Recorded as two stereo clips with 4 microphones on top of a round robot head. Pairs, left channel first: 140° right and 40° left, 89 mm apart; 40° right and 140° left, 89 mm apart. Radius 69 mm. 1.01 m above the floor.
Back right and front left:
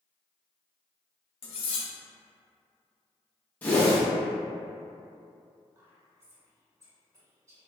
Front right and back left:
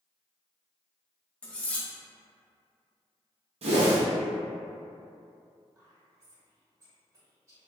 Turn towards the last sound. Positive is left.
turn(degrees=90)